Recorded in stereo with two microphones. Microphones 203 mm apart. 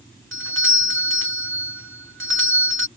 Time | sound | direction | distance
0.3 | a doorbell | 75° right (ahead or behind) | ?